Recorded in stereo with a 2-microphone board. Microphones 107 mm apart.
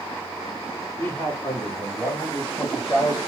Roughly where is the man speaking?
Centre.